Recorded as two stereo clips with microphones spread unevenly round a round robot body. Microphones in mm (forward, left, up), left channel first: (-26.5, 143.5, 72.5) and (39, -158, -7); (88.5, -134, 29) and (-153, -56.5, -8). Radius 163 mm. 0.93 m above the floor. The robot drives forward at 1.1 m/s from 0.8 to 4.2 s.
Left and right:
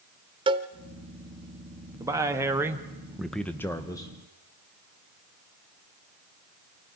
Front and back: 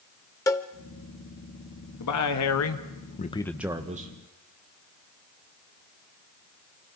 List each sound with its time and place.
0.5 s a cowbell: 10° left, 0.6 m
2.0 s a man speaking: 5° right, 1.7 m; by 4.1 s 170° right, 1.1 m